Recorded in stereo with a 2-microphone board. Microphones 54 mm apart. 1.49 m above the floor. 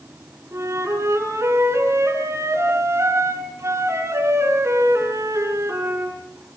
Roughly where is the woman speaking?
I don't hear a woman speaking.